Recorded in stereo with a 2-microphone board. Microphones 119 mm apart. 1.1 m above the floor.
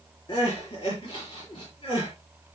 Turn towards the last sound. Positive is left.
turn(degrees=45)  # may be behind; listen again after turning